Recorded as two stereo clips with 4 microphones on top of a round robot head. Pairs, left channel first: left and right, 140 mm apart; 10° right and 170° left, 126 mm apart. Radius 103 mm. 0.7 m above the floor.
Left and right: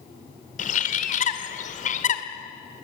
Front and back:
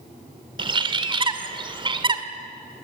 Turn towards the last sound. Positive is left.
turn(degrees=120)